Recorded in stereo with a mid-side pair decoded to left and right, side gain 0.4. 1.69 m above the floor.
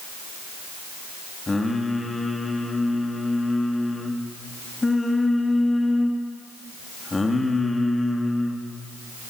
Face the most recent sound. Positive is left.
turn(degrees=25)